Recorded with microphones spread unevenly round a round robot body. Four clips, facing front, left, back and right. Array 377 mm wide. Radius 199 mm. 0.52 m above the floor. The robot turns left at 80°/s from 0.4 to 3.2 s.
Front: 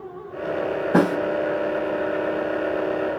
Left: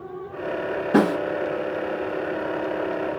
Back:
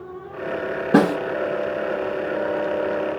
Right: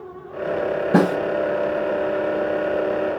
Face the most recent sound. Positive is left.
turn(degrees=30)